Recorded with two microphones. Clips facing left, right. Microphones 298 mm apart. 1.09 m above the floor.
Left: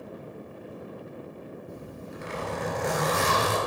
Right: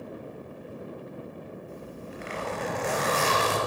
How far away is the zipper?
About 3.5 m.